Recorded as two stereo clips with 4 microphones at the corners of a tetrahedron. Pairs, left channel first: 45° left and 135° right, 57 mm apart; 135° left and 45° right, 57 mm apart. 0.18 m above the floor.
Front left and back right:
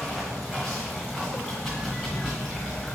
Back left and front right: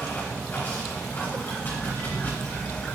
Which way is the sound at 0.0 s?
140° left.